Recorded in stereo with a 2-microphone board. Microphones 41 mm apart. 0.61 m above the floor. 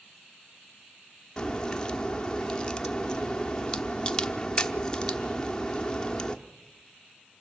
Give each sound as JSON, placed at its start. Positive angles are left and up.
{"t": 1.4, "sound": "a crack", "side_deg": 20, "distance_m": 0.9}